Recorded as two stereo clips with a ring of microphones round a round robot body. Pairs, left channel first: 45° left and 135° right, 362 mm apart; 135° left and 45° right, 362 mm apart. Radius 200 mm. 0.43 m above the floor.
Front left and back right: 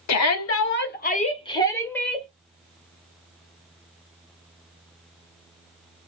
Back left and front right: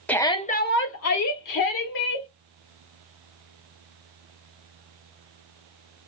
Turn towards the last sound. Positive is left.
turn(degrees=135)